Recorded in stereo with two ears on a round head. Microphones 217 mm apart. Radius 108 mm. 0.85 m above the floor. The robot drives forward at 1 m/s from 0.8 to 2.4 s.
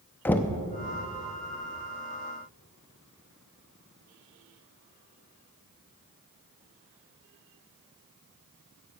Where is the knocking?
5° left (ahead or behind), 0.5 m.